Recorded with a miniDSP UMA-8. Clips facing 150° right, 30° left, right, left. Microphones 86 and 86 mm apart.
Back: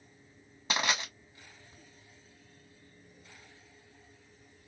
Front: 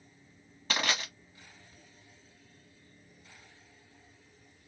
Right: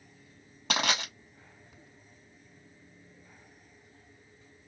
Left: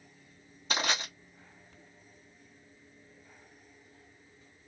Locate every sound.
0.7 s crushing: 80° right, 1.2 m